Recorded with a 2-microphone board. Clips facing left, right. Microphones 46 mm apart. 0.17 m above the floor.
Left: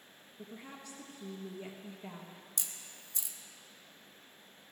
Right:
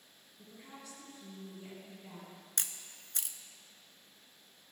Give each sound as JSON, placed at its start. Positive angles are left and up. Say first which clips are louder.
{"t": 0.4, "sound": "a woman speaking", "louder": "left 4 dB", "side_deg": 45, "distance_m": 2.0}
{"t": 2.6, "sound": "a camera shutter", "louder": "right 6 dB", "side_deg": -60, "distance_m": 0.8}